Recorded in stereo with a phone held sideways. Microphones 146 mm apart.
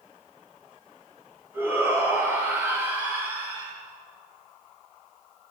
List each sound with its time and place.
1.5 s a shout: 15° right (ahead or behind), 9 m